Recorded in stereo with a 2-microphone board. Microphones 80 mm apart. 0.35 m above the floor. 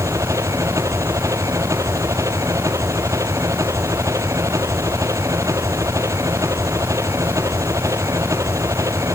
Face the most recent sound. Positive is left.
turn(degrees=-40)  # may be behind; listen again after turning